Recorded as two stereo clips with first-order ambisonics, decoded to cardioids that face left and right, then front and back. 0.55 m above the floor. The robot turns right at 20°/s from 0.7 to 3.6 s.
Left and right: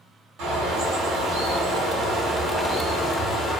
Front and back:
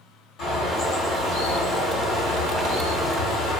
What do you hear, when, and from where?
0.4 s a bird: 55° right, 1.1 m; by 3.6 s 5° left, 1.1 m